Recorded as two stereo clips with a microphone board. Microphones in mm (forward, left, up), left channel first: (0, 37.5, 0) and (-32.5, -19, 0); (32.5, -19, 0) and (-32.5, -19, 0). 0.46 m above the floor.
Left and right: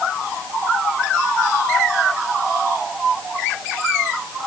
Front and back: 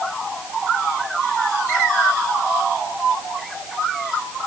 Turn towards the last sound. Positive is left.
No sound to turn to.